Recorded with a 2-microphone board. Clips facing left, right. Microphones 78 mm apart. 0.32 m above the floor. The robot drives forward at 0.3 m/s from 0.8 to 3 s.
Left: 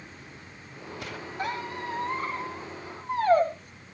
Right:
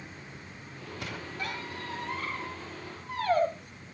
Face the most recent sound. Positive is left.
turn(degrees=25)  # may be behind; listen again after turning